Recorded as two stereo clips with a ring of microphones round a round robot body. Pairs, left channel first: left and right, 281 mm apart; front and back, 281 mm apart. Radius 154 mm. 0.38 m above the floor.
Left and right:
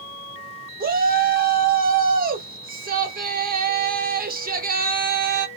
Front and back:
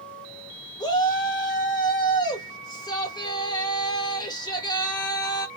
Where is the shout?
65° right, 1.4 m.